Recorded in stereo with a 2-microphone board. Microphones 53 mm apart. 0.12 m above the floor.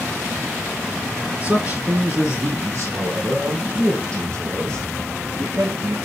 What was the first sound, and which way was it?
A man speaking, 30° right (ahead or behind).